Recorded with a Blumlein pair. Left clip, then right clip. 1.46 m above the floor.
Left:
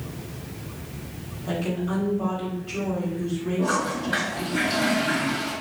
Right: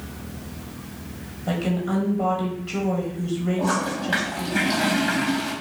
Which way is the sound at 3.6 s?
60° right.